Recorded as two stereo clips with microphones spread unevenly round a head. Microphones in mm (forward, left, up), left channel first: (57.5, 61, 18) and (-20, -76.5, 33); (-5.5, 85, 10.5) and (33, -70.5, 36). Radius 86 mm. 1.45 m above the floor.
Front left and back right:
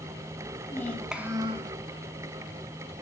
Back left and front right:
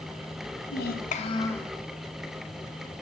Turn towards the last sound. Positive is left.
turn(degrees=-160)